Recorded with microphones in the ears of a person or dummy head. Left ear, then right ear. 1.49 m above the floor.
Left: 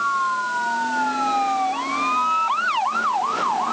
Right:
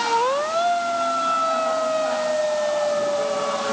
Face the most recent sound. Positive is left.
No sound to turn to.